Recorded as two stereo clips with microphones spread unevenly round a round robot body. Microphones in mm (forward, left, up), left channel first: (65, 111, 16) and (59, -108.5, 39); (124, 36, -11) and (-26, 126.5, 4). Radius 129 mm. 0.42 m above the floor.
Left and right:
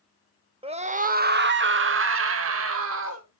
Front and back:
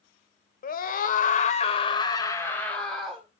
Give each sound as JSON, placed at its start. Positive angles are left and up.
{"t": 0.6, "sound": "a scream", "azimuth_deg": -25, "distance_m": 1.3}